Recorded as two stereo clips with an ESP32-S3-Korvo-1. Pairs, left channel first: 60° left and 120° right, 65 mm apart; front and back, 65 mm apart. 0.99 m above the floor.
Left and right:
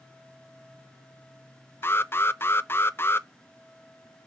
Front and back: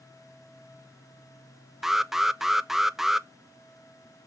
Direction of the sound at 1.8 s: 95° left.